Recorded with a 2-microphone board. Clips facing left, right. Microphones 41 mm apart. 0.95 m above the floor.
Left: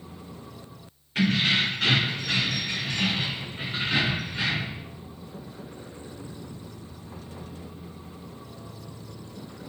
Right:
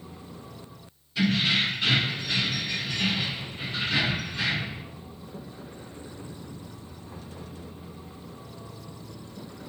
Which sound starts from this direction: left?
Keys jangling, at 1.1 s.